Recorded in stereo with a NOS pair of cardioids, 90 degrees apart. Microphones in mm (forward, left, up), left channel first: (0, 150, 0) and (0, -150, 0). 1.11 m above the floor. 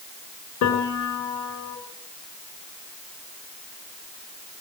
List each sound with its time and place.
0.6 s a piano: 70° left, 7 m